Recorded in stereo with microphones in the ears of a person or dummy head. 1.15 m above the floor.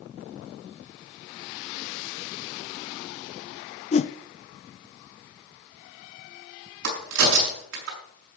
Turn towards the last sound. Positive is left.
turn(degrees=-75)  # may be behind; listen again after turning